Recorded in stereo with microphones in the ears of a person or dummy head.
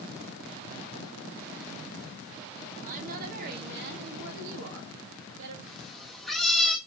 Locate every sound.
2.8 s a woman speaking: 45° right (ahead or behind), 2.5 m; by 5.6 s 70° right (ahead or behind), 2.0 m
5.7 s a cat meowing: centre (ahead or behind), 1.3 m